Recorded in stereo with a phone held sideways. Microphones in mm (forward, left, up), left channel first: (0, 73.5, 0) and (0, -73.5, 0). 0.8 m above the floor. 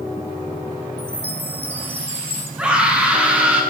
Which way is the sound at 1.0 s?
45° right (ahead or behind).